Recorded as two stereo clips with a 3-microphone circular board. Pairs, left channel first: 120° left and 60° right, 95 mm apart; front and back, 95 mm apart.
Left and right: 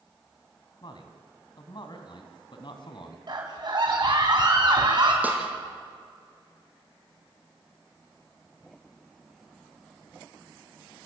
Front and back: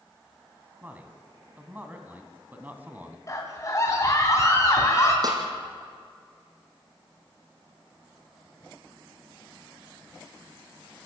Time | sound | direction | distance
0.8 | a man speaking | 110° left | 2.5 m
3.3 | a scream | 45° right | 2.5 m
5.2 | a snare drum | 135° right | 3.5 m